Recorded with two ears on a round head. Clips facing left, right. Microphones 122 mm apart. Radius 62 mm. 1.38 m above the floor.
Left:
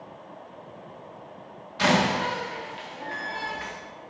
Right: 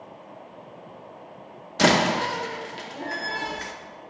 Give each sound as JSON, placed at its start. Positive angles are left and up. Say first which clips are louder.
{"t": 1.8, "sound": "a door slam", "louder": "right 2 dB", "side_deg": -45, "distance_m": 0.7}